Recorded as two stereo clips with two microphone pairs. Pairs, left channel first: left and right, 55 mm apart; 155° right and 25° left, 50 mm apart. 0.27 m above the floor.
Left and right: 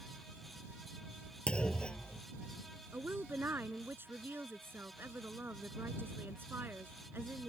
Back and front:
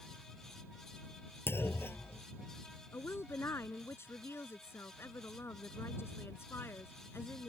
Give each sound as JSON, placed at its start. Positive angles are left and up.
{"t": 1.5, "sound": "a clunk", "azimuth_deg": 165}
{"t": 2.9, "sound": "a woman speaking", "azimuth_deg": -135}